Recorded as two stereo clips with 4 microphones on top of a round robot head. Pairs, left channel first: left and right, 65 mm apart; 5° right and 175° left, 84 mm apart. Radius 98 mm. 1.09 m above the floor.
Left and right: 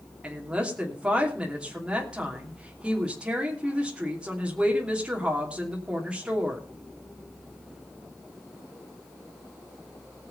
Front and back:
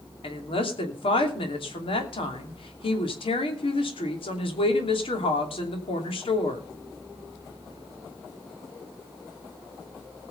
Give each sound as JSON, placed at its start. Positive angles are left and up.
{"t": 0.2, "sound": "a woman speaking", "azimuth_deg": -15, "distance_m": 3.0}